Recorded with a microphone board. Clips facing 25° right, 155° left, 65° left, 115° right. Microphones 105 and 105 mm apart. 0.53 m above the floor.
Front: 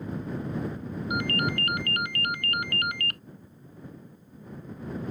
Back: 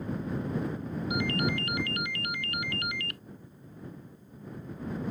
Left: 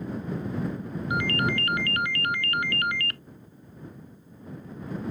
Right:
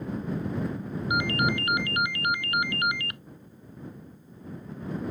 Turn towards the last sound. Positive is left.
turn(degrees=-45)